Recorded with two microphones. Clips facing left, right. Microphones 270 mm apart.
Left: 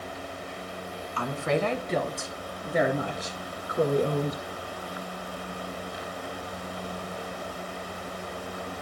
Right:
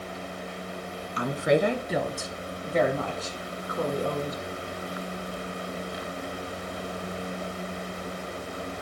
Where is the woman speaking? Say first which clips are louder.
Right 4 dB; 20° right (ahead or behind), 1.3 m; by 4.4 s 30° left (ahead or behind), 1.6 m.